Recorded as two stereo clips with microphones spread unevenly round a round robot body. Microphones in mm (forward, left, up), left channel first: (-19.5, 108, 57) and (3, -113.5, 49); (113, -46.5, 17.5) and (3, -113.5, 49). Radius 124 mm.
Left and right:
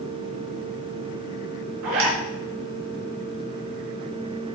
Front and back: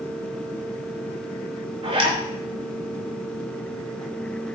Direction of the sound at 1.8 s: 105° right.